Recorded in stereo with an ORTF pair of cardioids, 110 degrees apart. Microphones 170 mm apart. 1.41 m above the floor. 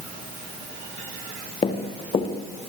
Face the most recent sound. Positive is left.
turn(degrees=35)